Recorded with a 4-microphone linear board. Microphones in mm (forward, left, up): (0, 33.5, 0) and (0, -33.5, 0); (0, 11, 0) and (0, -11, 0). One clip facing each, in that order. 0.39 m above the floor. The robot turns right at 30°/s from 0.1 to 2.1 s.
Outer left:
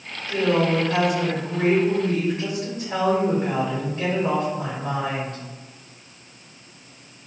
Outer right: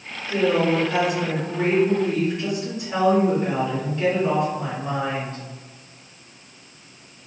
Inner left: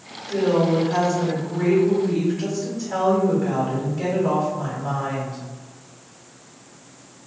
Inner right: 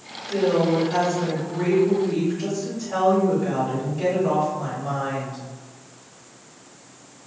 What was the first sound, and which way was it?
A woman speaking, 15° right.